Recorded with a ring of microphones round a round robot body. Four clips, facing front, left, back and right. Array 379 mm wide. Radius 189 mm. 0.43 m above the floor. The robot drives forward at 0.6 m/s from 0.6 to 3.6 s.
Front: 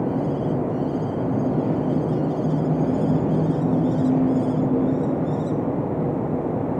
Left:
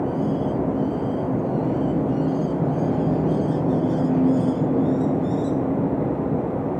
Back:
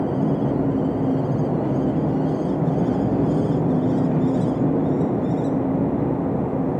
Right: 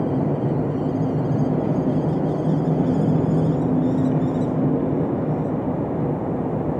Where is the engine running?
130° right, 5.5 m; by 6.8 s 140° right, 7 m.